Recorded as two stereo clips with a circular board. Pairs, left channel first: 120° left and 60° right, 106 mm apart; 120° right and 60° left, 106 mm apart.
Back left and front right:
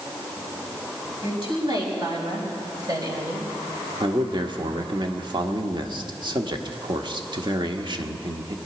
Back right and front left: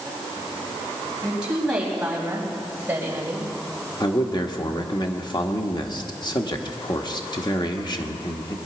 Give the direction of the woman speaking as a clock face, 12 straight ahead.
1 o'clock.